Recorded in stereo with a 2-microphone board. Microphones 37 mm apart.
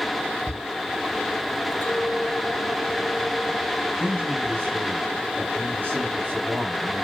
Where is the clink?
75° left (ahead or behind), 3.5 m.